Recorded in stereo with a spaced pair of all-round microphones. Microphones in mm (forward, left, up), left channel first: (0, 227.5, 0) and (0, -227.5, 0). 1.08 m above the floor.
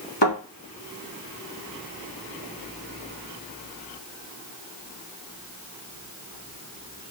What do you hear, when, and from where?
0.2 s a thud: 65° left (ahead or behind), 3 m